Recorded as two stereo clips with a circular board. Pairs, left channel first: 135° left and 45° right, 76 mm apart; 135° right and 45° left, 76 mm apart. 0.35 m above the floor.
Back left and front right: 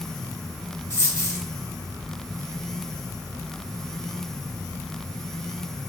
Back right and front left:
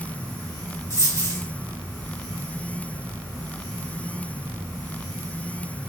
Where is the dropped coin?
Straight behind, 1.2 m.